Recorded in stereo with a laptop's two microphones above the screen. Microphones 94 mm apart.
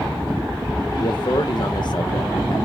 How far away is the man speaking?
About 0.7 m.